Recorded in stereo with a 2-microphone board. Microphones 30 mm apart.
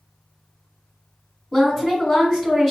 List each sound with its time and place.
1.5 s a woman speaking: 15° left (ahead or behind), 1.3 m